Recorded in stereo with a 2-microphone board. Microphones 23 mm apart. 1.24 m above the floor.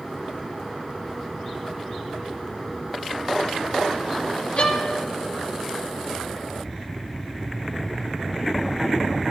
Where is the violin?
55° left (ahead or behind), 1.4 m.